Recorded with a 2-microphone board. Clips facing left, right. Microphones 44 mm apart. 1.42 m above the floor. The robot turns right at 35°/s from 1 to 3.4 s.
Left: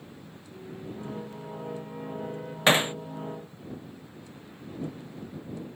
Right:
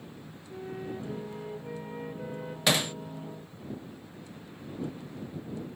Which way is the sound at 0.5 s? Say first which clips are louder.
Right 3 dB; 60° right.